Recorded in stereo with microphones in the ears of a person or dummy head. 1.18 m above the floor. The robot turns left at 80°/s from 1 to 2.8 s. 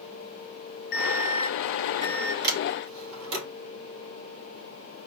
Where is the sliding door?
45° right (ahead or behind), 2.5 m; by 3.5 s 70° right (ahead or behind), 2.5 m.